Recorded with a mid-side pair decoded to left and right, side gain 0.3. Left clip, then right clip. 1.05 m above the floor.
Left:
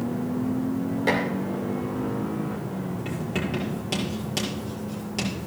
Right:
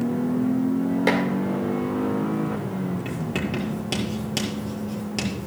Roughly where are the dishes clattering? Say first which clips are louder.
Right 1 dB; ahead right.